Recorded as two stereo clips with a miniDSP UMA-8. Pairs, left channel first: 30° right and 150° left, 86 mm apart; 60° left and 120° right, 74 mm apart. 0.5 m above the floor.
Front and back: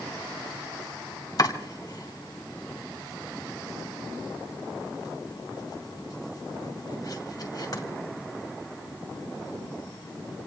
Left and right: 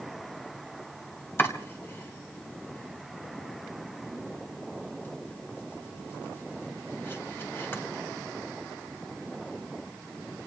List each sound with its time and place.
1.4 s chopping: 5° left, 2.5 m